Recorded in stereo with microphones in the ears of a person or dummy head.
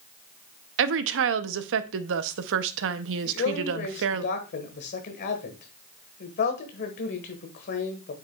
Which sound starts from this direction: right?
A woman speaking, at 0.8 s.